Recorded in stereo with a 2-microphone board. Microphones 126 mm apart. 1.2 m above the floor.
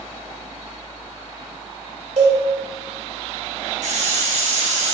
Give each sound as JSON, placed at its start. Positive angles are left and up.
{"t": 2.2, "sound": "a cowbell", "side_deg": -65, "distance_m": 2.5}
{"t": 3.8, "sound": "a hiss", "side_deg": -70, "distance_m": 3.0}